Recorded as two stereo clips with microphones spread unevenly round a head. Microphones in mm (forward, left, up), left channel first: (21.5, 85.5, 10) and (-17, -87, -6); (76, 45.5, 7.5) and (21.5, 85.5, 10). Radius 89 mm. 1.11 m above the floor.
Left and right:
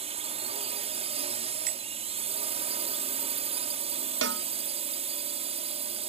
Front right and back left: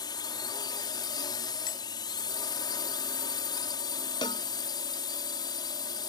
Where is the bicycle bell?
60° right.